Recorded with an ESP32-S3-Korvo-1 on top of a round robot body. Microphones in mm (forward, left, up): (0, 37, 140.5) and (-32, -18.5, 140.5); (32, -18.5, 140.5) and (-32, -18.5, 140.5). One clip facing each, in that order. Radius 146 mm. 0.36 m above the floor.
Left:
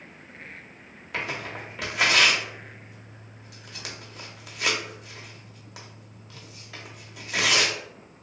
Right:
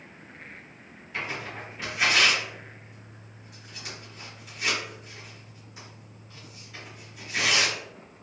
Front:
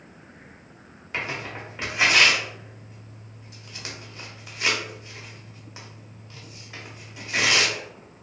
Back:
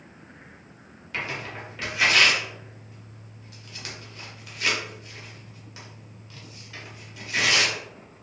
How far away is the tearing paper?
About 0.7 m.